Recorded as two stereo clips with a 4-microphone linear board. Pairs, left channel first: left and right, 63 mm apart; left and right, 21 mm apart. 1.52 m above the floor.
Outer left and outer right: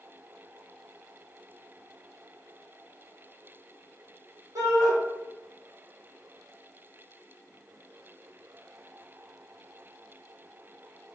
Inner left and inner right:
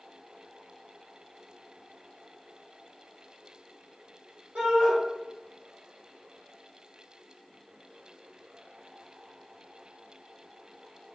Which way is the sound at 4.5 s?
80° right.